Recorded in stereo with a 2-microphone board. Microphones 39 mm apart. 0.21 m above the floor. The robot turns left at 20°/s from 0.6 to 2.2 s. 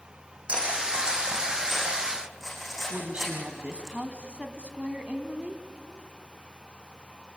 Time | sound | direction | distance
0.5 | cutlery clinking | 30° right (ahead or behind) | 7 m
2.9 | a woman speaking | 35° right (ahead or behind) | 1.6 m